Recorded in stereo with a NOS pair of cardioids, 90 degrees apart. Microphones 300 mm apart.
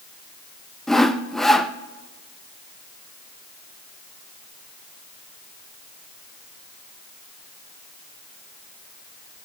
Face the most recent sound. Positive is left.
turn(degrees=0)